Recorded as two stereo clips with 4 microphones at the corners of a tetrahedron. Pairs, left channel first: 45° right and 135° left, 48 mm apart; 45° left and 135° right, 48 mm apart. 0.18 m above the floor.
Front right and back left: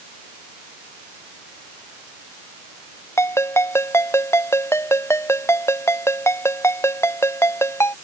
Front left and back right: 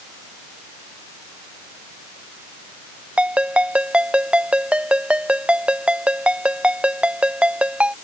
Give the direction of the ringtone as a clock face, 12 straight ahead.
2 o'clock.